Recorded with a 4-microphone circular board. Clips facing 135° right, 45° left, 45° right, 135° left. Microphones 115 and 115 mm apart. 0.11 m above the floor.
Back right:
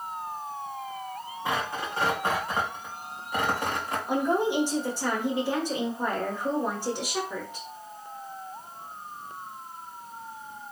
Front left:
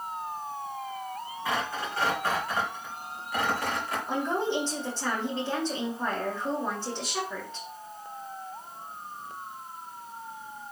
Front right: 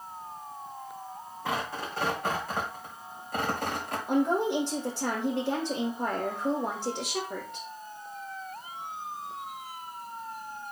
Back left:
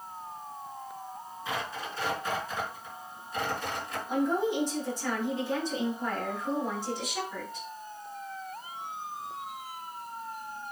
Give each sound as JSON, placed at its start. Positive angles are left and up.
{"t": 1.4, "sound": "tearing paper", "azimuth_deg": -70, "distance_m": 4.5}
{"t": 4.1, "sound": "a woman speaking", "azimuth_deg": -60, "distance_m": 5.0}